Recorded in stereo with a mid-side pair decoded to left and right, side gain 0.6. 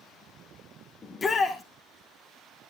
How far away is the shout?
About 2.5 m.